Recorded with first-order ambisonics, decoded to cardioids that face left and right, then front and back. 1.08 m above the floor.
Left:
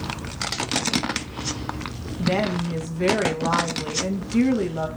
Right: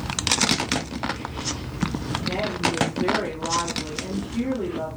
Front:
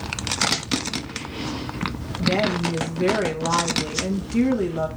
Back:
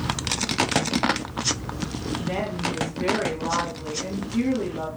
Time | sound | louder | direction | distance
2.2 | a woman speaking | left 2 dB, front 8 dB | 70° left | 1.3 m